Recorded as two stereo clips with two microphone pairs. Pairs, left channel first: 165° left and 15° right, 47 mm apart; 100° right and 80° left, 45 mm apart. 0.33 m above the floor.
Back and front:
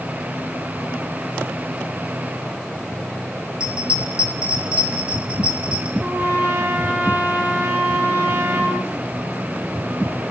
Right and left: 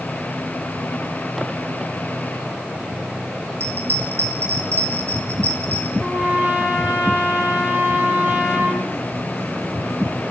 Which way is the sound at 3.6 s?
50° left.